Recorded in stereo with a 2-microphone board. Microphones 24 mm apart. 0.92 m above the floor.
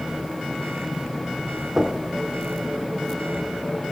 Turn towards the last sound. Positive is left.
turn(degrees=-20)  # may be behind; listen again after turning